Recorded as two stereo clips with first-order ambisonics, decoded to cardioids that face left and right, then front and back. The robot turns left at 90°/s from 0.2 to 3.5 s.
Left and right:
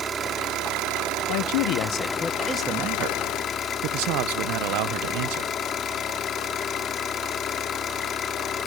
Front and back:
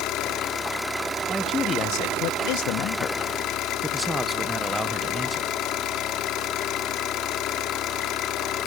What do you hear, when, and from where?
0.0 s an engine running: 30° right, 1.3 m; by 8.7 s 35° left, 1.3 m
1.3 s a man speaking: 100° left, 0.6 m; by 5.5 s 100° right, 0.6 m